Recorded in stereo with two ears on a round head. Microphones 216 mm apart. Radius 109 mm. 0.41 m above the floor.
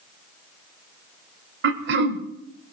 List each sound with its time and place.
1.6 s throat clearing: 50° right (ahead or behind), 1.3 m